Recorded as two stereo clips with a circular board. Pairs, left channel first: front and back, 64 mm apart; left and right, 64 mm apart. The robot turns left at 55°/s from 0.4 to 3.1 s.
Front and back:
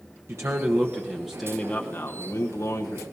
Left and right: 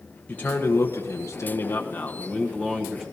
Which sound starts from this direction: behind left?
A man speaking, at 0.3 s.